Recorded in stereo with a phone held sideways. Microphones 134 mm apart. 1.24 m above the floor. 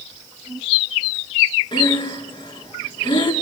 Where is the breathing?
40° left (ahead or behind), 3.5 m.